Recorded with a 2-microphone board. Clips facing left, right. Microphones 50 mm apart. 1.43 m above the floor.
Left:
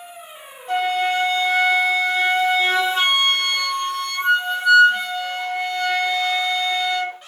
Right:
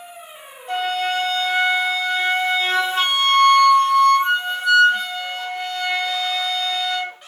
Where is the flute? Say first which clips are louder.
Left 2 dB; 5° right (ahead or behind), 1.1 m.